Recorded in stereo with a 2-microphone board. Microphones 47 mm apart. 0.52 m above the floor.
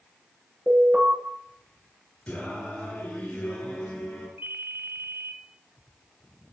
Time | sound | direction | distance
0.7 | an alarm | 30° right (ahead or behind) | 10 m
2.3 | singing | 35° left (ahead or behind) | 7 m
4.4 | a ringtone | 55° right (ahead or behind) | 1.1 m